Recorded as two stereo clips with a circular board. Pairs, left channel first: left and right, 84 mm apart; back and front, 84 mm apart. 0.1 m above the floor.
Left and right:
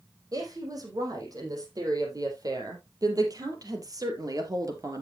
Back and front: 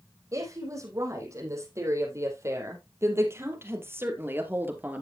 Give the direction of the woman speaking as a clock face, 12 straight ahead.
2 o'clock.